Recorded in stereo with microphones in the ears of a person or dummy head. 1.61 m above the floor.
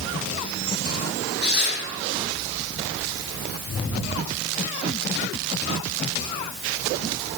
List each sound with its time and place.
1.4 s tearing paper: 55° left (ahead or behind), 7.5 m